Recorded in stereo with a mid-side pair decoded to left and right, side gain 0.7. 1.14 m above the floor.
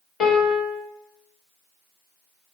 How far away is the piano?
About 1.4 m.